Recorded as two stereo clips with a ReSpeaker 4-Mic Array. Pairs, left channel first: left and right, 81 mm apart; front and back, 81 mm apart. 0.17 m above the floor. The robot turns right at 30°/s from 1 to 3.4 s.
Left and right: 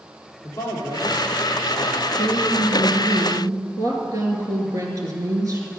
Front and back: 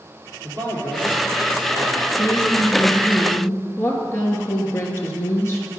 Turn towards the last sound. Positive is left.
turn(degrees=-55)